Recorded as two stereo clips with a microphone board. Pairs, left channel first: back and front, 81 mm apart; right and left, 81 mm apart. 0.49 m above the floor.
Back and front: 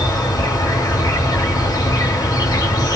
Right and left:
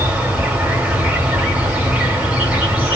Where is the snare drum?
I don't hear a snare drum.